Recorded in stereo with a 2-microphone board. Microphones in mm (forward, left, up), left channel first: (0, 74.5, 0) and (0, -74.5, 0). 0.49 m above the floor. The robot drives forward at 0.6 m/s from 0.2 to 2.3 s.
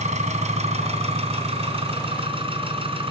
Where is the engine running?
50° right (ahead or behind), 3 m; by 3.1 s 35° right (ahead or behind), 4 m.